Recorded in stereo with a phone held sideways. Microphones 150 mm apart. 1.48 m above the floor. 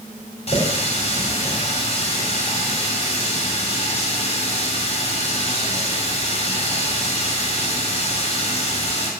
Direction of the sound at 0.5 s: 45° left (ahead or behind).